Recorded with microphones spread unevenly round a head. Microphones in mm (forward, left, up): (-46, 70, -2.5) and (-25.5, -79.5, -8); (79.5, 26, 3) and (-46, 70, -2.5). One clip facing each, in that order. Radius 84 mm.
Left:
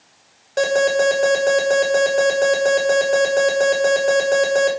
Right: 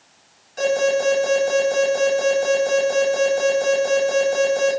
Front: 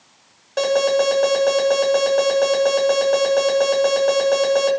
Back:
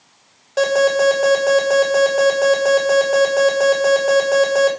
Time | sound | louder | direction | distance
0.6 | an alarm | left 2 dB, back 2 dB | 75° left | 7 m